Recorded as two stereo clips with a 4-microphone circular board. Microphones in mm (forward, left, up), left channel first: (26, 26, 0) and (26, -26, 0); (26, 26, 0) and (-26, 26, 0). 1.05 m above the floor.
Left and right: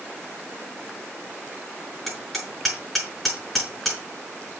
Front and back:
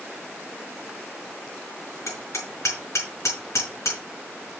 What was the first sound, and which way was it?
Hammering, straight ahead.